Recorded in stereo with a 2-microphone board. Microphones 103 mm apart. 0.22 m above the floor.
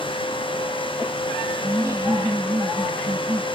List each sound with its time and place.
1.6 s laughter: 30° right (ahead or behind)